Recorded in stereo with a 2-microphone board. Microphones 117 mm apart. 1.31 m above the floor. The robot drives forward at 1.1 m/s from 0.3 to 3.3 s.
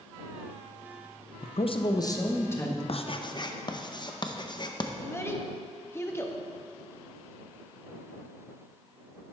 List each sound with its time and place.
1.4 s a man speaking: 75° left (ahead or behind), 0.5 m; by 2.8 s 15° left (ahead or behind), 1.7 m
2.9 s writing: 55° left (ahead or behind), 0.5 m; by 4.9 s 40° left (ahead or behind), 0.7 m
5.0 s a child speaking: 20° left (ahead or behind), 1.0 m